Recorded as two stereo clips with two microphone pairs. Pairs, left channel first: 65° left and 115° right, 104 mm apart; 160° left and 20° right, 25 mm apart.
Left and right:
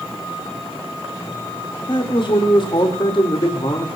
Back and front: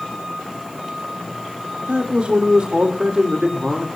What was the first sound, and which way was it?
A man speaking, 30° left.